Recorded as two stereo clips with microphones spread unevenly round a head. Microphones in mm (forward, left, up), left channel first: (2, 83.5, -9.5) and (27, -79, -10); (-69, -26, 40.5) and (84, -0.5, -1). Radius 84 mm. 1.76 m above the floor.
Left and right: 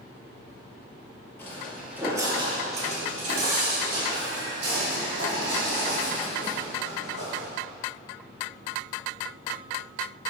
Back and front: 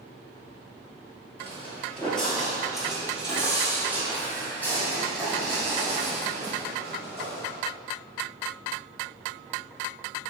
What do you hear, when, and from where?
1.4 s footsteps: 160° left, 2.0 m; by 7.5 s 70° right, 8 m